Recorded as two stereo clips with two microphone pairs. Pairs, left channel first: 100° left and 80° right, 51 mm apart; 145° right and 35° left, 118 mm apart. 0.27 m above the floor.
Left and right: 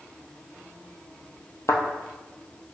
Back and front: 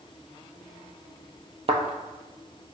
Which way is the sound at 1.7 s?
70° left.